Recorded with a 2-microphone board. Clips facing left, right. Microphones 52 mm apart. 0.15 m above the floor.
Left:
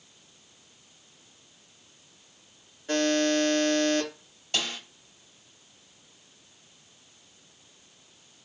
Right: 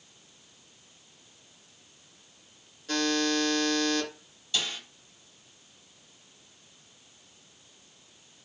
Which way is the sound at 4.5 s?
50° left (ahead or behind).